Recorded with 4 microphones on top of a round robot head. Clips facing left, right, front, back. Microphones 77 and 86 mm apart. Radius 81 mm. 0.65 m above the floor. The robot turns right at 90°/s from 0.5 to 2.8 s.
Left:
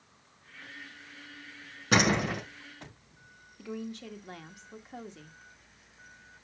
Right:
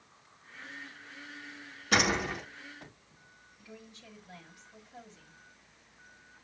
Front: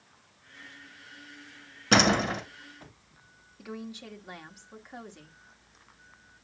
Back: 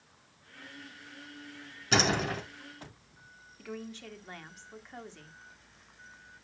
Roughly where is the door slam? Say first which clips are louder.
Left 3 dB, front 5 dB; ahead left.